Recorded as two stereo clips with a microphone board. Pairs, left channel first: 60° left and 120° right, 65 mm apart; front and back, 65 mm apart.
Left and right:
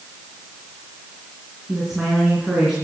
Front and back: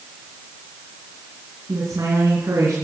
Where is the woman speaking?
155° left, 4.5 m.